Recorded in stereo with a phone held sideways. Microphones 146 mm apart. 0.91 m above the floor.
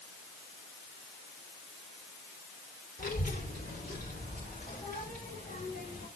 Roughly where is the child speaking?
Left.